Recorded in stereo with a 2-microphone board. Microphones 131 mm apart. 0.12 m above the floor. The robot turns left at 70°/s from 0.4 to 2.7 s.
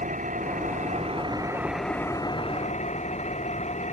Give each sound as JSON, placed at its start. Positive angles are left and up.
{"t": 0.0, "sound": "an engine running", "azimuth_deg": -80}